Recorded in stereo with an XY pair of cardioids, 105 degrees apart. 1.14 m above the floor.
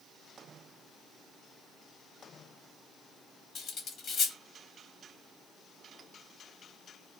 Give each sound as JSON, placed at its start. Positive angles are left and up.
{"t": 3.5, "sound": "cutlery clinking", "azimuth_deg": 60, "distance_m": 0.8}